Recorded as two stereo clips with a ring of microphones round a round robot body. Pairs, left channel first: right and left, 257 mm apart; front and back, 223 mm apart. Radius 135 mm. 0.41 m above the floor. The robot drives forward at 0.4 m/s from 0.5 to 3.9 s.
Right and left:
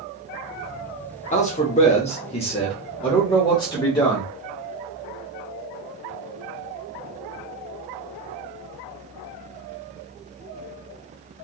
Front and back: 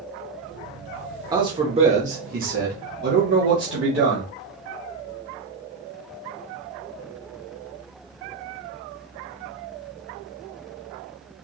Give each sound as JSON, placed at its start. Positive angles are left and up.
{"t": 1.3, "sound": "a man speaking", "azimuth_deg": -120, "distance_m": 0.9}